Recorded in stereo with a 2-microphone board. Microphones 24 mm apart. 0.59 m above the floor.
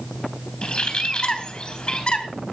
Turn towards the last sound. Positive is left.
turn(degrees=40)  # may be behind; listen again after turning